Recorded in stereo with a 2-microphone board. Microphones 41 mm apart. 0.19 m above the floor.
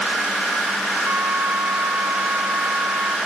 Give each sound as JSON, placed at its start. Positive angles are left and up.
{"t": 1.1, "sound": "a flute", "side_deg": -85}